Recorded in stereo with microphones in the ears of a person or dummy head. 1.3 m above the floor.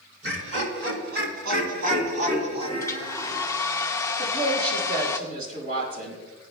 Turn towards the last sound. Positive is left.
turn(degrees=-55)  # may be behind; listen again after turning